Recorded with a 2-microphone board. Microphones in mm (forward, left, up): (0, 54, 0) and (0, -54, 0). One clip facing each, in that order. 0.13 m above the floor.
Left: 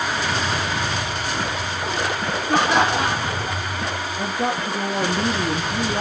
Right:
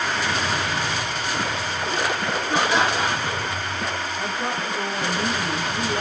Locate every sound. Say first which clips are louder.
2.5 s laughter: left 3 dB; 50° left (ahead or behind), 3.5 m
4.2 s a woman speaking: left 6 dB; 60° left (ahead or behind), 3 m